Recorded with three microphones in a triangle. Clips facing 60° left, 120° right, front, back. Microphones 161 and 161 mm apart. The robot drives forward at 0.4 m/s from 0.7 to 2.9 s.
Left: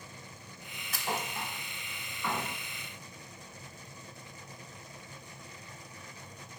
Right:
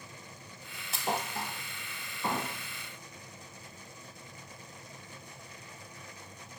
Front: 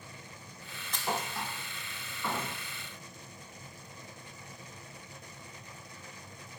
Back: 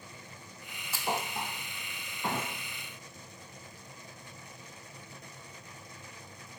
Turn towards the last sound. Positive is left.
turn(degrees=-160)